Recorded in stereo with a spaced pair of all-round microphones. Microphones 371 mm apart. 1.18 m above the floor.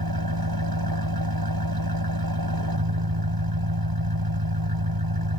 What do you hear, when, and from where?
0.0 s an engine running: 75° right (ahead or behind)